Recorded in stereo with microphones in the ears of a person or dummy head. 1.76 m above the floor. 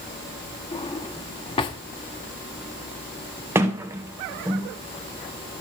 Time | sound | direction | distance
0.7 | a drawer | 25° left (ahead or behind) | 1.3 m
3.5 | a sliding door | 10° right (ahead or behind) | 1.7 m